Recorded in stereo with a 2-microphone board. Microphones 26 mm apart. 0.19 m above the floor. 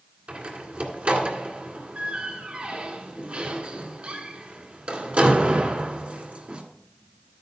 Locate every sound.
0.3 s a door slam: 50° right (ahead or behind), 1.8 m